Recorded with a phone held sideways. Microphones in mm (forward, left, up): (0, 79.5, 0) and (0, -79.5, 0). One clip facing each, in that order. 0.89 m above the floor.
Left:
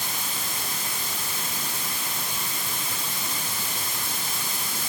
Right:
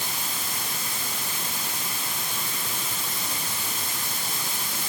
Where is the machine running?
I don't hear a machine running.